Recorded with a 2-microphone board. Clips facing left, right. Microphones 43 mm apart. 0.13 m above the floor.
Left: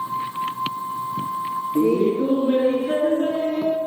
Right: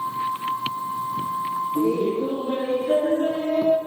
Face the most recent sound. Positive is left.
turn(degrees=0)  # may be behind; listen again after turning